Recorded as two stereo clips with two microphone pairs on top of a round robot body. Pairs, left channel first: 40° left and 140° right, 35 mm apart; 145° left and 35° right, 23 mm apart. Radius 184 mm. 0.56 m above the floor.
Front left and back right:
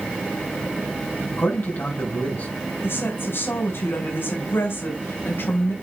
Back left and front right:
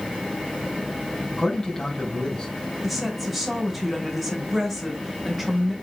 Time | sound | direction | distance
1.3 | a man speaking | 70° left | 4.5 m
2.8 | a woman speaking | 50° left | 4 m